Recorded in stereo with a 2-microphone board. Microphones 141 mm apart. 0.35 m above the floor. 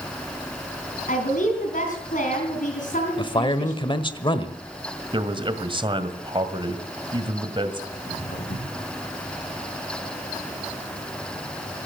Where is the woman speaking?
70° left (ahead or behind), 3.5 m.